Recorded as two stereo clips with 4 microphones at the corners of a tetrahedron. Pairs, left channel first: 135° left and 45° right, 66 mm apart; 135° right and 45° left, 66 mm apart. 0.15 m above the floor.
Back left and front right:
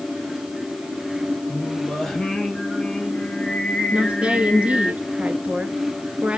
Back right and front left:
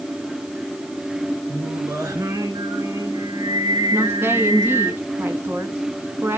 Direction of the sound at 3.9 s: 20° left.